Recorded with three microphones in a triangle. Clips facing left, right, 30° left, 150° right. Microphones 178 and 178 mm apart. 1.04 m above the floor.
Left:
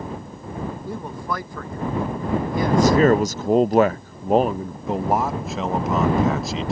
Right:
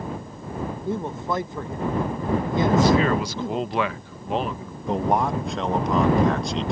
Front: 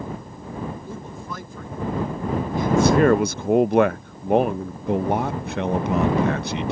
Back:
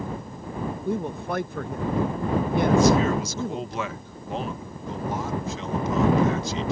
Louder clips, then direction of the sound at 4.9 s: Even, front 7 dB; 5° left.